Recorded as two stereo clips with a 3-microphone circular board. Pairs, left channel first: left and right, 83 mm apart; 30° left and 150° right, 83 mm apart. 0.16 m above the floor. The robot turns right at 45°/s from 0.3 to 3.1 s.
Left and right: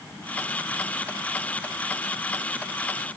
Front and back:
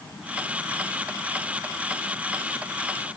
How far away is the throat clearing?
I don't hear throat clearing.